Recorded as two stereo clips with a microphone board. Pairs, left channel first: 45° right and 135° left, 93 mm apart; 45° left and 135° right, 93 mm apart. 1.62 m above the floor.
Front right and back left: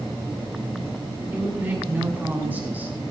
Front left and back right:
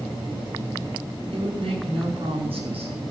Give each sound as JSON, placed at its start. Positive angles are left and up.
{"t": 1.3, "sound": "a woman speaking", "azimuth_deg": -155, "distance_m": 6.0}